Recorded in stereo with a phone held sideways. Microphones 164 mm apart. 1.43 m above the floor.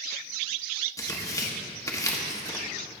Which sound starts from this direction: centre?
Tearing paper, at 1.0 s.